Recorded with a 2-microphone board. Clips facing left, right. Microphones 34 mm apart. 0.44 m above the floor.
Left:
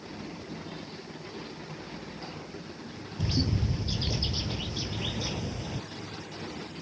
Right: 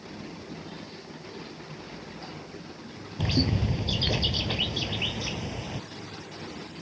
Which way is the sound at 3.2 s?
50° right (ahead or behind).